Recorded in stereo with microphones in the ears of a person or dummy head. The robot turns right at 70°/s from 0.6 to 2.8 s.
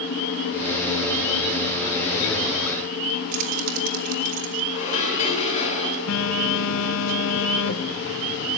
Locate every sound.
3.3 s keys jangling: 40° right (ahead or behind), 1.6 m
4.7 s dishes clattering: 40° left (ahead or behind), 6.5 m
6.1 s a phone buzzing: 70° left (ahead or behind), 1.5 m